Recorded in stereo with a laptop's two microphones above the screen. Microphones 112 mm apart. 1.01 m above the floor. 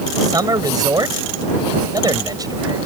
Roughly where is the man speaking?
Right.